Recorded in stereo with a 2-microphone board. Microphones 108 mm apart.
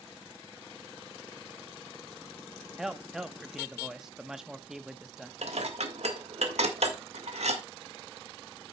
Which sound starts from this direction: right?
Dishes clattering, at 5.4 s.